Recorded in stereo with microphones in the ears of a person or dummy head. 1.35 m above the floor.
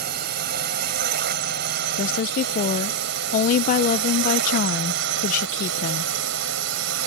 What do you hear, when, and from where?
0.0 s a drone: 55° right (ahead or behind); by 7.1 s 70° right (ahead or behind)
2.0 s a woman speaking: 40° left (ahead or behind)